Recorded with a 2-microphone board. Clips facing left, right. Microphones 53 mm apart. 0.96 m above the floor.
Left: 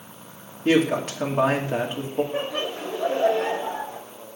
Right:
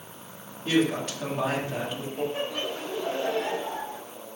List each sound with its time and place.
0.7 s a woman speaking: 50° left (ahead or behind), 2.5 m
2.3 s laughter: 60° left (ahead or behind), 2.5 m